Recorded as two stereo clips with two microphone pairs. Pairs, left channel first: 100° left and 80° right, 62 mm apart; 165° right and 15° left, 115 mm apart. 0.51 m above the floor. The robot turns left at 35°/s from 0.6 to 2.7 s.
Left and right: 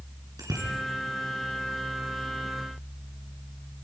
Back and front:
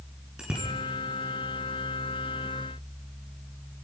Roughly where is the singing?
I don't hear singing.